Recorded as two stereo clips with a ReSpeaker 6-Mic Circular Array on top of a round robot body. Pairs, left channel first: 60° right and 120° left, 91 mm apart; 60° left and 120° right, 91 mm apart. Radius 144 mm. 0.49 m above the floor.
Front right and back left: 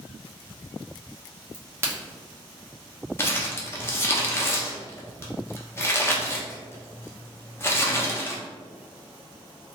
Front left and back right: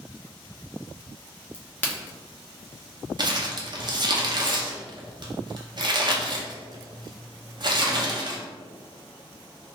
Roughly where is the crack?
Left.